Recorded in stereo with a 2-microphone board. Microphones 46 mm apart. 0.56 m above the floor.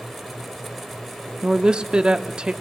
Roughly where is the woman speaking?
Centre.